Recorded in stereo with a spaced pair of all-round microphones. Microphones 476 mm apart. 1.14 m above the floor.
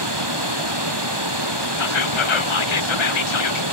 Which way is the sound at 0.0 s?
55° right (ahead or behind).